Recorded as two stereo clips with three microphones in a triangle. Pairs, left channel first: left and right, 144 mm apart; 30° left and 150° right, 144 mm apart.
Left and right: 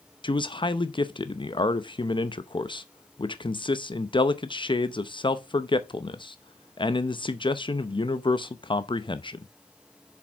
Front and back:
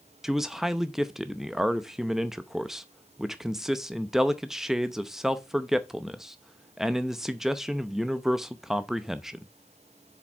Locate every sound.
0.2 s a man speaking: 125° left, 0.6 m